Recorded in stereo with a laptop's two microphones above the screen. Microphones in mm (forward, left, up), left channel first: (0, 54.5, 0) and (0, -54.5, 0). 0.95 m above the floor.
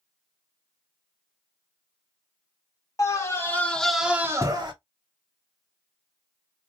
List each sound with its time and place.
3.0 s a scream: 30° left (ahead or behind), 1.7 m; by 4.7 s 45° right (ahead or behind), 1.1 m